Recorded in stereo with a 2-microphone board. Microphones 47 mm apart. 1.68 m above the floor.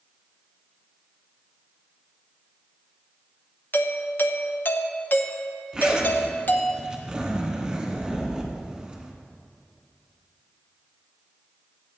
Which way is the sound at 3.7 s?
45° left (ahead or behind).